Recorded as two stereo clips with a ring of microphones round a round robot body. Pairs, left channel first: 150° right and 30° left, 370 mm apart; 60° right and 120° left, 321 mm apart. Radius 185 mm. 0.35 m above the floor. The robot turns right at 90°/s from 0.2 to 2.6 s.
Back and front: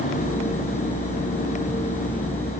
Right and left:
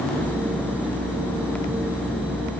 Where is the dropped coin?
No dropped coin in this recording.